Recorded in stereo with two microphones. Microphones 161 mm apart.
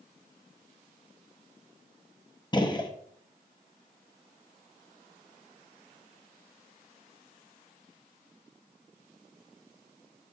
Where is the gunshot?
25° left (ahead or behind), 0.8 m.